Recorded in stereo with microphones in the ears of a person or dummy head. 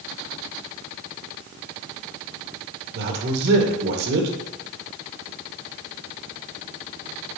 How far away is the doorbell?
No doorbell in this recording.